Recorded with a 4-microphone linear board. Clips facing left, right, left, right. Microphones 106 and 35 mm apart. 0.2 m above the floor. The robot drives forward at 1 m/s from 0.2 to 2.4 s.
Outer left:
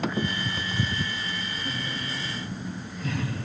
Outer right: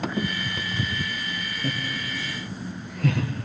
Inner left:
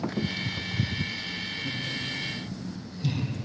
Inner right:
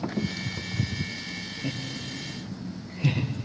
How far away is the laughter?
About 4 m.